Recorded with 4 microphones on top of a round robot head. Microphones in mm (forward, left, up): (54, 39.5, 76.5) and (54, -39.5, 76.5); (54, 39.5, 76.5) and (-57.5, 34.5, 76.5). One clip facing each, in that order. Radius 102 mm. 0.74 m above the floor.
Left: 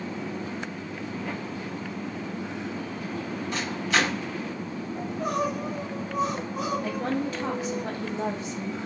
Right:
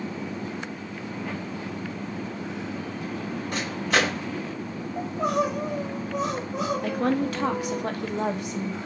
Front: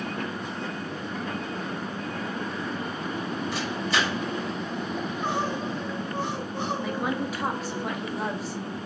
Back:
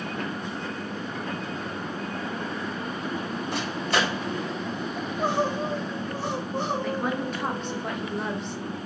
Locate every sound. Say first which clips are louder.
3.5 s a microwave: right 2 dB, back 3 dB; 135° right, 2 m
5.0 s crying: right 4 dB, back 4 dB; 120° right, 1.0 m
6.8 s a woman speaking: right 4 dB, back 1 dB; 80° right, 0.8 m